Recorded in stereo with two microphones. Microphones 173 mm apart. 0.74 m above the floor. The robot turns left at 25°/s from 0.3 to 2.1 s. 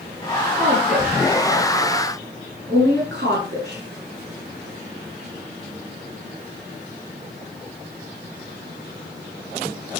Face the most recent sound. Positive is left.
turn(degrees=-75)  # may be behind; listen again after turning